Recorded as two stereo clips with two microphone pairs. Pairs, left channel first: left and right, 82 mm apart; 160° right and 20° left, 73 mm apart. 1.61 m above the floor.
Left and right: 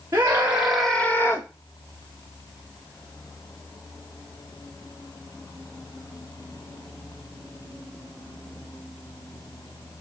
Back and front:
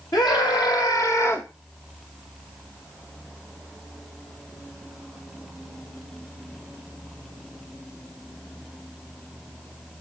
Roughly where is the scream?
Behind right.